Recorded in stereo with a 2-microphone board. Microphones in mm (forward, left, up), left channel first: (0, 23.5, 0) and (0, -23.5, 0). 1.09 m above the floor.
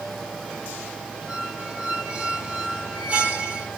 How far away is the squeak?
About 1.7 m.